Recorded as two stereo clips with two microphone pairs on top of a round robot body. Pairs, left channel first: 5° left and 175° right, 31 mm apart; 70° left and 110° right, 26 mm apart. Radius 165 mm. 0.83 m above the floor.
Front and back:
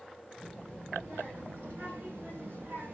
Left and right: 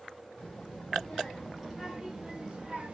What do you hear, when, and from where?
0.4 s a child speaking: 155° left, 1.8 m; by 2.9 s 155° right, 0.7 m